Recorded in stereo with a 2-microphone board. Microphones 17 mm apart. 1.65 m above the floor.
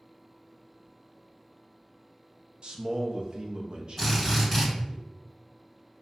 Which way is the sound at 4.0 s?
5° left (ahead or behind).